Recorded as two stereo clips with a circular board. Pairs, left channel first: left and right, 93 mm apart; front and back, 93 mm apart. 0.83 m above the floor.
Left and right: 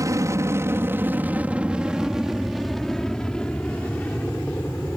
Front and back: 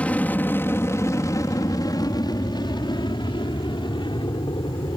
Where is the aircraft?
65° right; by 5.0 s 20° left.